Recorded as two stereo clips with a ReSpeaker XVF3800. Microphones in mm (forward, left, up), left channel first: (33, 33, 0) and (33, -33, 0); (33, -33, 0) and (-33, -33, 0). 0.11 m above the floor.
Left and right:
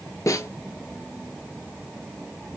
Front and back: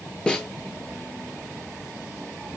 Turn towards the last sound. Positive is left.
turn(degrees=70)